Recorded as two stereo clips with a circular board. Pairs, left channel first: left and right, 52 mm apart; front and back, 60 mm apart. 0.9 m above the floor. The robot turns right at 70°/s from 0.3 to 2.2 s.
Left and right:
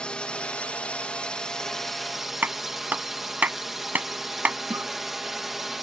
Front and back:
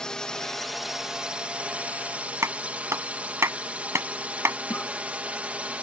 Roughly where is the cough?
Ahead right.